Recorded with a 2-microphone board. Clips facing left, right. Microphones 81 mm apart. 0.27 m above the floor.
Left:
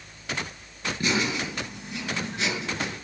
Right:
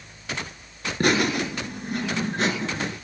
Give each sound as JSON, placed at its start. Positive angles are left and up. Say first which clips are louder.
{"t": 1.0, "sound": "laughter", "louder": "right 6 dB", "side_deg": -55, "distance_m": 5.0}